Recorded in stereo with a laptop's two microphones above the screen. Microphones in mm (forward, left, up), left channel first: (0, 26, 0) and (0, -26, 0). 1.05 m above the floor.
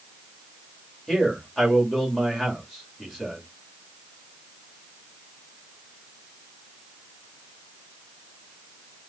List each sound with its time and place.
1.1 s a man speaking: 5° left (ahead or behind), 2.5 m